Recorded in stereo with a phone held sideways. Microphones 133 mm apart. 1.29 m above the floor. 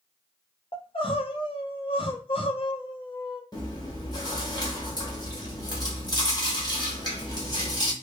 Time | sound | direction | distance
0.7 | crying | 40° left (ahead or behind) | 0.6 m
3.5 | chewing | 30° left (ahead or behind) | 1.1 m